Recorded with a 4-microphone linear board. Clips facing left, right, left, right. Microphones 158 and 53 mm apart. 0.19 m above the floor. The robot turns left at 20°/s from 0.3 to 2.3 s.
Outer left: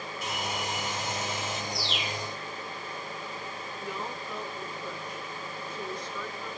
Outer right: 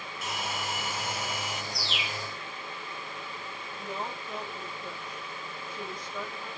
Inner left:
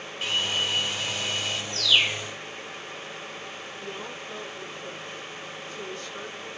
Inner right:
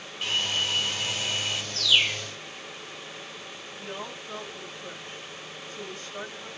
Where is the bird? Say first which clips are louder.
Outer left 3 dB, inner left 1 dB; centre (ahead or behind), 1.4 m; by 2.3 s 5° left (ahead or behind), 1.4 m.